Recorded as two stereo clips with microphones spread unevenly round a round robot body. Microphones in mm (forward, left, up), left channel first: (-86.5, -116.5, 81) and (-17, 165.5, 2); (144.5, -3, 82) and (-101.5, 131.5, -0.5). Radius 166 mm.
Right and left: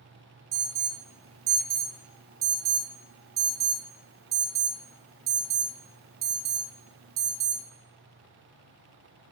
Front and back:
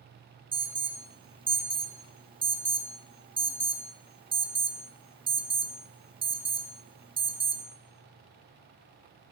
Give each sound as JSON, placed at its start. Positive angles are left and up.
{"t": 0.5, "sound": "an alarm", "azimuth_deg": 90, "distance_m": 0.6}